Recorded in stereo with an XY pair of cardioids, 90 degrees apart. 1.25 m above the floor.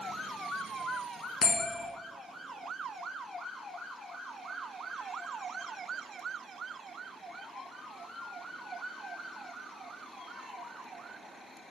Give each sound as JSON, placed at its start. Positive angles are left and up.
{"t": 1.4, "sound": "a bell", "azimuth_deg": 60, "distance_m": 0.7}